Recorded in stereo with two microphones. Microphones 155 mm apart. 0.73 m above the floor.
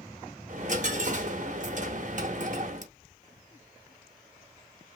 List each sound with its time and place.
0.5 s a dropped coin: 55° right (ahead or behind), 0.6 m